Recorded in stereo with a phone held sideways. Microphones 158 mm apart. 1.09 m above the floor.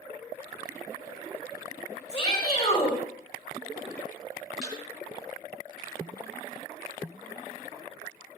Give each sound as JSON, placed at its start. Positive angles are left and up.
{"t": 2.1, "sound": "a shout", "side_deg": 25, "distance_m": 3.5}
{"t": 4.6, "sound": "a thud", "side_deg": 0, "distance_m": 8.0}